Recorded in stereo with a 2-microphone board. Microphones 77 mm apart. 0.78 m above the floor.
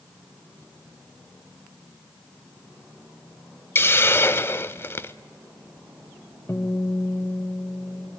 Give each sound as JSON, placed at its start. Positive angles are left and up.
{"t": 3.8, "sound": "a hiss", "side_deg": 30, "distance_m": 0.6}
{"t": 6.5, "sound": "a guitar", "side_deg": 35, "distance_m": 2.0}